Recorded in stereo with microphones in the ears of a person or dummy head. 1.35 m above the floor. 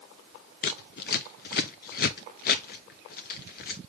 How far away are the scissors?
About 0.5 m.